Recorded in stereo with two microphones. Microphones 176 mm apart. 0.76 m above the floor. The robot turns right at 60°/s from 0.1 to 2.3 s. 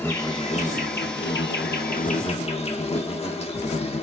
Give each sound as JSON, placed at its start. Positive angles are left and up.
{"t": 0.0, "sound": "an insect", "azimuth_deg": 15, "distance_m": 0.8}